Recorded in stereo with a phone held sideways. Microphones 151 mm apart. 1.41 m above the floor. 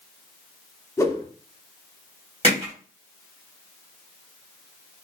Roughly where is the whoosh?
Centre.